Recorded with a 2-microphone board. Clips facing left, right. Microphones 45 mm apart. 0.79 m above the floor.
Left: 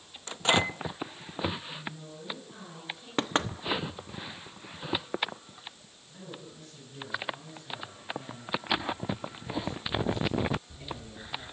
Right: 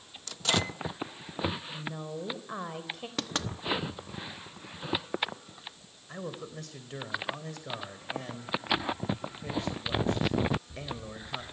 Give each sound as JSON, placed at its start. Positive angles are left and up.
{"t": 0.3, "sound": "a microwave", "side_deg": 25, "distance_m": 0.6}
{"t": 1.7, "sound": "a woman speaking", "side_deg": -65, "distance_m": 4.5}
{"t": 3.2, "sound": "knocking", "side_deg": 30, "distance_m": 1.0}
{"t": 6.1, "sound": "a man speaking", "side_deg": -80, "distance_m": 3.5}